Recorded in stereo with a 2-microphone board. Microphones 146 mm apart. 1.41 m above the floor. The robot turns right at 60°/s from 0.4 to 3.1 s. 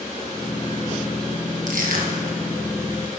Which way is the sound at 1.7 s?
65° right (ahead or behind).